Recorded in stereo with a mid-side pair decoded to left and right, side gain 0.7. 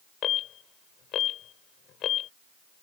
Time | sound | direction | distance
0.2 | an alarm | 50° left | ?